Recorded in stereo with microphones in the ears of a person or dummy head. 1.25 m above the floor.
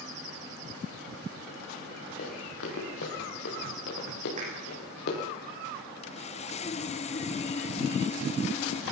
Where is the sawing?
35° left (ahead or behind), 0.9 m.